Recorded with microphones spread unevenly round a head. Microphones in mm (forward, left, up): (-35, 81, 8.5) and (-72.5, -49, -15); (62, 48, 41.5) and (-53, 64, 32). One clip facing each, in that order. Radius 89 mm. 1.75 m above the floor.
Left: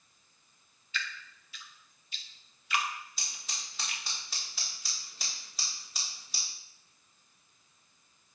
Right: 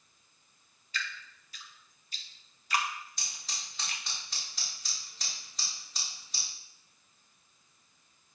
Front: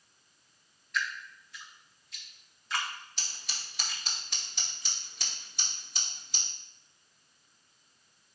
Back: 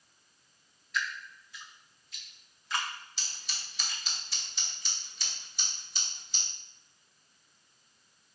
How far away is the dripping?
About 0.7 m.